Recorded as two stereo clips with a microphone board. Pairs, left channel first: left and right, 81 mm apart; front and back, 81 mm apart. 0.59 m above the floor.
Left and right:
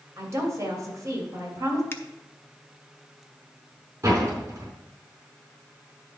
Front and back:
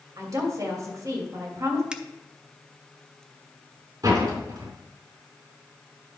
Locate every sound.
0.2 s a woman speaking: 135° right, 2.5 m
1.9 s a finger snap: 115° left, 0.7 m
4.0 s a door slam: 145° right, 3.5 m